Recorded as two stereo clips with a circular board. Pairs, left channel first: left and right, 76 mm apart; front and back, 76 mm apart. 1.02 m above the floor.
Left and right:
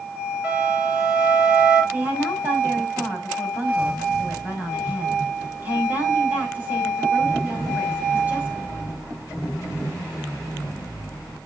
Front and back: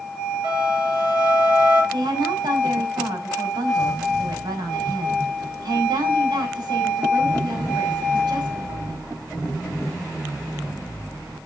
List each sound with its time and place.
0.4 s a flute: 160° right, 5 m
1.9 s a woman speaking: 155° right, 5.5 m